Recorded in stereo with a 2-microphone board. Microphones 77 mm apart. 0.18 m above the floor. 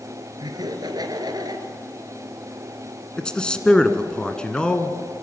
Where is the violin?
I don't hear a violin.